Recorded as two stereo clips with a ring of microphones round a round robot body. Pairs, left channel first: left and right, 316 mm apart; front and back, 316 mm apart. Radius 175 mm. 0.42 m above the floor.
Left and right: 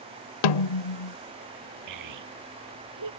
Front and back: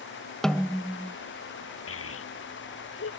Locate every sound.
0.4 s a snare drum: 90° left
1.9 s a child speaking: 50° right